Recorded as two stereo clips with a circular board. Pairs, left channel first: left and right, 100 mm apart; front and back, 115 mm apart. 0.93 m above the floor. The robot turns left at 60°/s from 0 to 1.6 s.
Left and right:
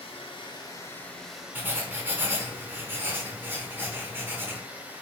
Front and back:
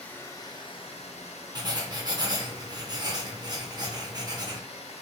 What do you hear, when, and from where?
0.0 s running water: 80° left, 0.8 m; by 5.0 s 15° right, 0.8 m
1.6 s writing: 145° right, 0.7 m; by 4.6 s 150° right, 0.7 m